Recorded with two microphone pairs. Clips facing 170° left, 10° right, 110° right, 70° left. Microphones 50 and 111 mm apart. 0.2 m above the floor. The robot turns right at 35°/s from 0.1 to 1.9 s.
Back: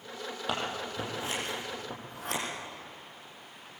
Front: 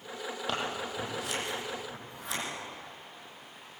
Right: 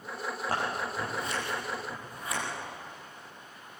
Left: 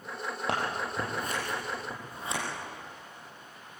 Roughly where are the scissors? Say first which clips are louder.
Back 1 dB, left 1 dB; left.